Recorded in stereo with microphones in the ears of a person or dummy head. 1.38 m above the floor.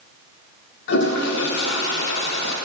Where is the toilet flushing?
65° left (ahead or behind), 0.9 m.